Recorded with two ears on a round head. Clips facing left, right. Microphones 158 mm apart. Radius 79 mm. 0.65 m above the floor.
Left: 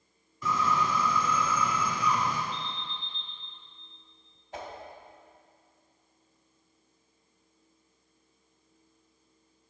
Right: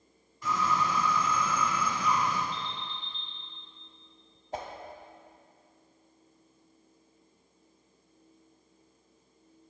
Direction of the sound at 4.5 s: 35° right (ahead or behind).